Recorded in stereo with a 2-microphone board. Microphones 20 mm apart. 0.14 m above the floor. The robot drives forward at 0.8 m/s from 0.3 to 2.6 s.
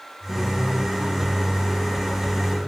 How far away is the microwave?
About 4 m.